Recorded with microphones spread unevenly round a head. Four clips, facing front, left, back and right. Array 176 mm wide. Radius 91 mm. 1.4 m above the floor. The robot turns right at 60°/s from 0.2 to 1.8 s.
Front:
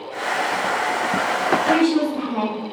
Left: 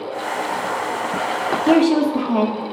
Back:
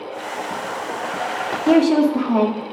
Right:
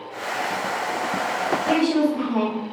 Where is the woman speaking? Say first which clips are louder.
Left 6 dB, back 7 dB; 135° left, 3 m; by 2.7 s 140° left, 3 m.